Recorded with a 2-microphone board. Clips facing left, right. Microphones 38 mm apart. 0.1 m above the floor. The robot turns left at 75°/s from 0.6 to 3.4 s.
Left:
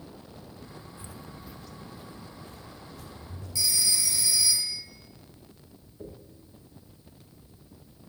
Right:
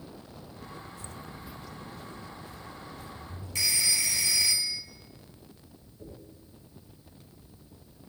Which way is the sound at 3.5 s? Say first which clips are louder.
Right 1 dB; 55° right (ahead or behind).